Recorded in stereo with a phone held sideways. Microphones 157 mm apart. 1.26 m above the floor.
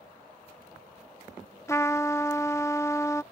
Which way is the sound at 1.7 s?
20° left (ahead or behind).